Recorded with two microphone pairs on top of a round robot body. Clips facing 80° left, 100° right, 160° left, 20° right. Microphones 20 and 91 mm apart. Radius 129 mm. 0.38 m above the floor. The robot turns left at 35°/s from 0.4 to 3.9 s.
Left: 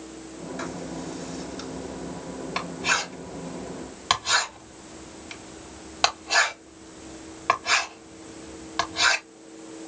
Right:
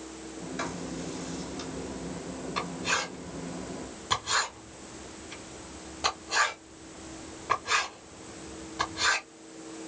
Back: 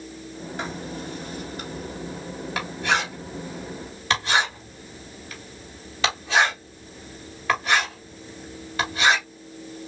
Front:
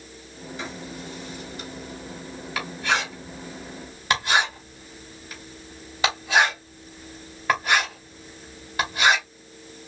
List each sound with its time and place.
0.6 s writing: straight behind, 3 m; by 9.2 s 65° left, 3 m